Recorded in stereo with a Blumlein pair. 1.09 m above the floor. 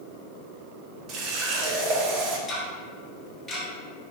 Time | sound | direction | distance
1.1 | a running tap | 40° right | 0.8 m
2.5 | ticking | 15° left | 1.1 m